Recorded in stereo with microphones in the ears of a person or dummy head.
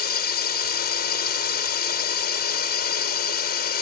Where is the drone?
50° left (ahead or behind).